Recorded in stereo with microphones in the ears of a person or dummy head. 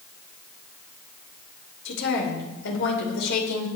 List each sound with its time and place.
1.9 s a woman speaking: 70° left (ahead or behind), 5 m